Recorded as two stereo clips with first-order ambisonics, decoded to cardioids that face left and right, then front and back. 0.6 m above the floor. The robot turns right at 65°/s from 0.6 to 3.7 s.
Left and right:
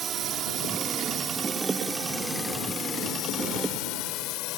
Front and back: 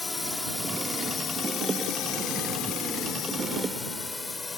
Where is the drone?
70° right; by 4.6 s 75° left.